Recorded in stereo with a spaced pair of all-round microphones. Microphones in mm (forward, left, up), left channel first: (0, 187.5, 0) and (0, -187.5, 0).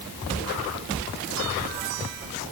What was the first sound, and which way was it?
Only background noise.